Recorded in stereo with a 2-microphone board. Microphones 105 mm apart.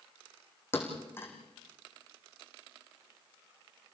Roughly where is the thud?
Left.